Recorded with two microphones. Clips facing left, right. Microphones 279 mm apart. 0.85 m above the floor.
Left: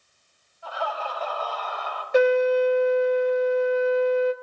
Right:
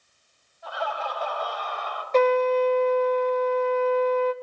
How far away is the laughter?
About 3.5 m.